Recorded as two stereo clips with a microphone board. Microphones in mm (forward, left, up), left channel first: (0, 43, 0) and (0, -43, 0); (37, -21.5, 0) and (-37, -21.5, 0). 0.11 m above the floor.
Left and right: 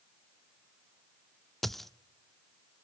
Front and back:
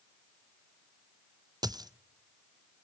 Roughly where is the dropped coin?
Behind.